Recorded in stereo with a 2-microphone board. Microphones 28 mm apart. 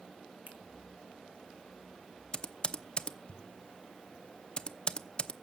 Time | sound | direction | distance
0.5 | a finger snap | 75° right (ahead or behind) | 2.5 m
2.3 | typing on a keyboard | 30° left (ahead or behind) | 0.8 m